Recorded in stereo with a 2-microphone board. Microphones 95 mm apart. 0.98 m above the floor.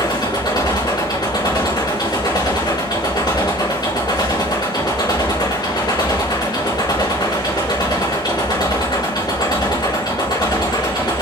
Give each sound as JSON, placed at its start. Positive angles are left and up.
{"t": 0.0, "sound": "an engine running", "side_deg": 50, "distance_m": 4.5}